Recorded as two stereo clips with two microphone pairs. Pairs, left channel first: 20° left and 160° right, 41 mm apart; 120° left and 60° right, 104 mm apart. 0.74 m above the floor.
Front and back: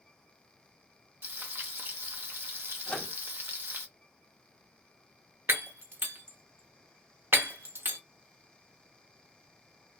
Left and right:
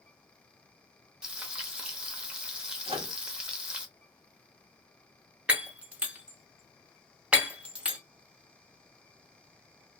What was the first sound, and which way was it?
Frying, 140° right.